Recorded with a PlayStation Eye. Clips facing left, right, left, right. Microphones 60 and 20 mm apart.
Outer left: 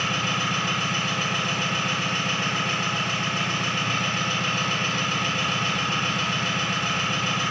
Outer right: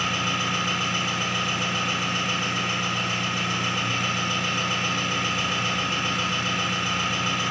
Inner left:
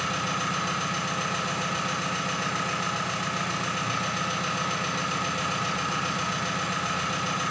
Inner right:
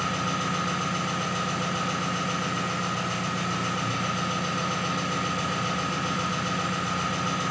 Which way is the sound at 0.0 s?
60° left (ahead or behind).